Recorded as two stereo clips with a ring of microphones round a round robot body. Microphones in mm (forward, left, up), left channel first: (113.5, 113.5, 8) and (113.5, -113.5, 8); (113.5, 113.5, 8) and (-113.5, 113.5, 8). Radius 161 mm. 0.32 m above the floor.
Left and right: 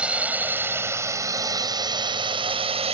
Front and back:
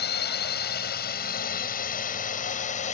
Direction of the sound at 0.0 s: 5° right.